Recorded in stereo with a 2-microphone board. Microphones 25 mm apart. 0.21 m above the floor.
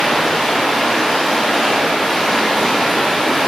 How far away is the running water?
About 6.5 m.